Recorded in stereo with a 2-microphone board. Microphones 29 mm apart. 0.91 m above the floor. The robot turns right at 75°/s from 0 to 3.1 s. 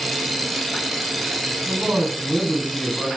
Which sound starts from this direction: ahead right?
A man speaking, at 1.7 s.